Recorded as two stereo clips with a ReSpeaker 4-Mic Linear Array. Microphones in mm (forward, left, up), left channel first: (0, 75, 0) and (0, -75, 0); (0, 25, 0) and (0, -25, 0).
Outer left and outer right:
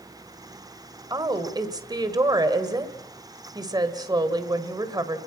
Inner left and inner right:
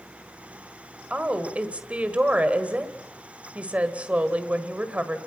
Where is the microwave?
I don't hear a microwave.